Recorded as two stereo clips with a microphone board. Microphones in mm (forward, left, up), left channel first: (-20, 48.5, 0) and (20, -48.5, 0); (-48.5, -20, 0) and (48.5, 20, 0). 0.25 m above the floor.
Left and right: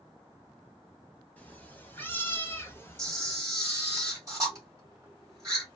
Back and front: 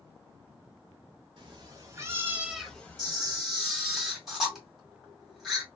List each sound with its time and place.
1.4 s a cat meowing: 40° left, 1.0 m; by 3.4 s 165° left, 0.8 m
3.0 s a camera shutter: 65° right, 1.6 m